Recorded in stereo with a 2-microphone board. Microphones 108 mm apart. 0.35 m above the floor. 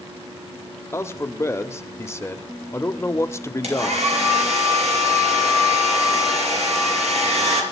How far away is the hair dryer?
About 4 m.